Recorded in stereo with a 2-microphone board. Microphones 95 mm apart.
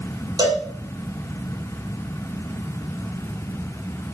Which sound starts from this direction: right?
A cowbell, at 0.4 s.